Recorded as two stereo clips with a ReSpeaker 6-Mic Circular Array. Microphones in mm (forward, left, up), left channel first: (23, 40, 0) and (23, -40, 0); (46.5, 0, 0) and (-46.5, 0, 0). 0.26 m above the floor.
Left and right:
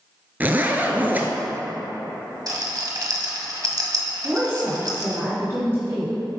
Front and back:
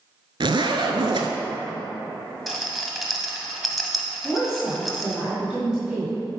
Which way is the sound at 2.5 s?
90° right.